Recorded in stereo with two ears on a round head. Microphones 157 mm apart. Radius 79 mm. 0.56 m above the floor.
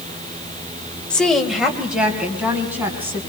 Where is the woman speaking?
5° left (ahead or behind), 1.7 m; by 3.2 s 10° right (ahead or behind), 4.5 m.